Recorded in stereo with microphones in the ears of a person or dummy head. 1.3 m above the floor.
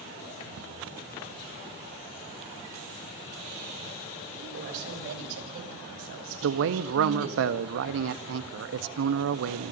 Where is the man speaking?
75° right (ahead or behind), 1.3 m.